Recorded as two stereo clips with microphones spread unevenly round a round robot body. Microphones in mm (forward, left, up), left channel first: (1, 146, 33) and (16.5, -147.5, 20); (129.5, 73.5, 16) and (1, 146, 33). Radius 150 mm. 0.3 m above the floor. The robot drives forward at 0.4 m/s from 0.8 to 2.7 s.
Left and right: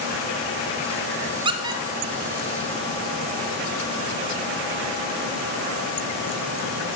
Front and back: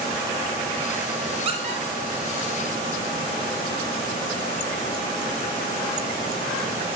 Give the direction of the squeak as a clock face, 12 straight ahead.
5 o'clock.